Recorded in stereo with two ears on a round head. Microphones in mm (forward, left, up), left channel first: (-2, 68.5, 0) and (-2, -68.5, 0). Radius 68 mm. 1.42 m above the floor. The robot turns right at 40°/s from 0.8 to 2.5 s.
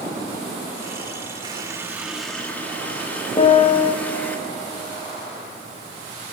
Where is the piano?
30° left (ahead or behind), 0.8 m.